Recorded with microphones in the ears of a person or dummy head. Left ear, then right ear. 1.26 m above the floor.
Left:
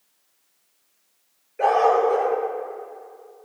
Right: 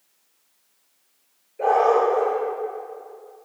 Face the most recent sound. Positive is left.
turn(degrees=55)  # may be behind; listen again after turning